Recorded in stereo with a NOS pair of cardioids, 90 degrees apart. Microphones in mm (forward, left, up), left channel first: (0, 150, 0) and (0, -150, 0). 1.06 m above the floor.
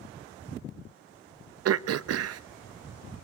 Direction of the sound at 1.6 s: 55° right.